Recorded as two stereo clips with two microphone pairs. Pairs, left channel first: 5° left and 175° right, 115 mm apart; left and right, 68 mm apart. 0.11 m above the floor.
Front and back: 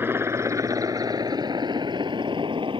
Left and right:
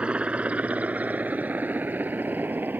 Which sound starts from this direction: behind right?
A helicopter, at 0.0 s.